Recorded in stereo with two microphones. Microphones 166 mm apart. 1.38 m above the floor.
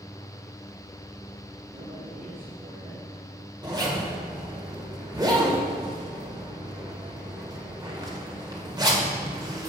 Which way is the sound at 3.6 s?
25° right (ahead or behind).